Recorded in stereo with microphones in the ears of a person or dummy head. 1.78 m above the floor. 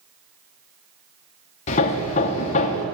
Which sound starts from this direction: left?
Hammering, at 1.7 s.